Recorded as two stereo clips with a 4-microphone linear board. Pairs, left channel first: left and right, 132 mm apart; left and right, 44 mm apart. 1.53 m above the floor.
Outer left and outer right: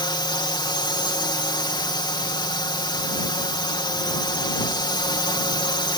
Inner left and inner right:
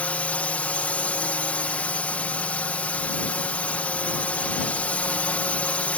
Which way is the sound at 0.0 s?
35° left (ahead or behind).